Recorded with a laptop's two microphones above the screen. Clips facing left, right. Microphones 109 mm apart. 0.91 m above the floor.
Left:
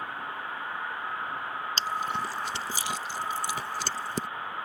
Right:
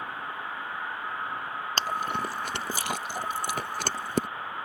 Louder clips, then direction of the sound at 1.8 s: Right 2 dB; 55° right (ahead or behind).